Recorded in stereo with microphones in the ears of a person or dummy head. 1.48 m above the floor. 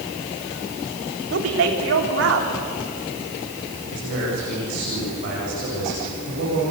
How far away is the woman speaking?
About 4 m.